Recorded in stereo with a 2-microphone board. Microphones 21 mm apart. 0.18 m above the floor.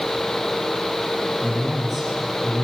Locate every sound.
1.4 s a man speaking: 5° left (ahead or behind), 5 m